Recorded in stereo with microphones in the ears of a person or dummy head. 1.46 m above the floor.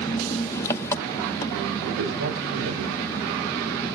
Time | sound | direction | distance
0.0 | an engine running | 15° left (ahead or behind) | 1.1 m
1.8 | a man speaking | 85° right | 6.5 m